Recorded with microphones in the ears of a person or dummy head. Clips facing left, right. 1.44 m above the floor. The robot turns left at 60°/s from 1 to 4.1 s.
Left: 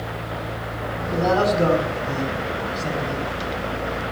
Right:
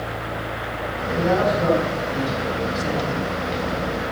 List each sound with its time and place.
1.1 s a man speaking: 85° left, 5 m; by 3.2 s 45° right, 5 m